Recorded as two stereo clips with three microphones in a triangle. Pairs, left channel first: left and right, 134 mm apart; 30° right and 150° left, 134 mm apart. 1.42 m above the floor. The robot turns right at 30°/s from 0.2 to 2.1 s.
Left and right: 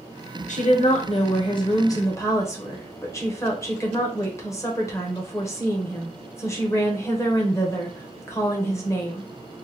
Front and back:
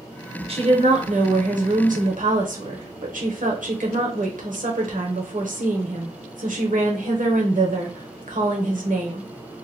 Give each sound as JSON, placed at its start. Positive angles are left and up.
{"t": 0.5, "sound": "a woman speaking", "azimuth_deg": 110, "distance_m": 0.9}